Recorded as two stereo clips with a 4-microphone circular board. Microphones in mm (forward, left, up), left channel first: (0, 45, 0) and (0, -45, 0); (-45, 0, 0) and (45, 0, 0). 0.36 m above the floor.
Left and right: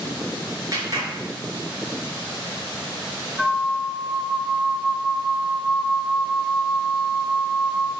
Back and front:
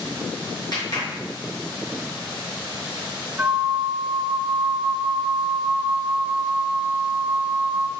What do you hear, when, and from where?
0.7 s a clap: 140° right, 3.5 m
3.4 s a flute: 5° left, 0.9 m